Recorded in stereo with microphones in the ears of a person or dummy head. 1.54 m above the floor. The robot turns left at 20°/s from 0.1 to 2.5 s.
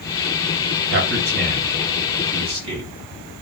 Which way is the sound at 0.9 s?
65° right (ahead or behind).